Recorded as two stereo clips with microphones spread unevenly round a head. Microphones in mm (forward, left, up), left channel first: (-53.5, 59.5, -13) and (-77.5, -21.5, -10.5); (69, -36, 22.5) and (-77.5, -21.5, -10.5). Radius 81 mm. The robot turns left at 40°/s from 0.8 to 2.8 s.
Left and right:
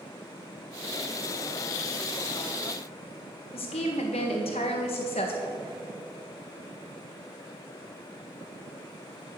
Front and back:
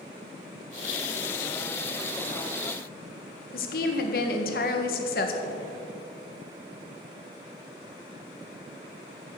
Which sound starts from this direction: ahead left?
A woman speaking, at 3.5 s.